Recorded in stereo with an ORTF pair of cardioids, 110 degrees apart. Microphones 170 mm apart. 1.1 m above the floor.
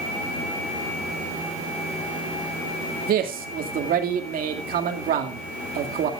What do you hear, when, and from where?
3.1 s a man speaking: 60° right, 2.5 m